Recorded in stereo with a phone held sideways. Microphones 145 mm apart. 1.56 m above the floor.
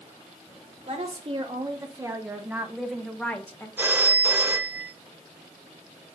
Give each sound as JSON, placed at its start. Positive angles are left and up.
{"t": 0.9, "sound": "a woman speaking", "side_deg": -45, "distance_m": 1.6}
{"t": 3.8, "sound": "a phone ringing", "side_deg": -15, "distance_m": 0.9}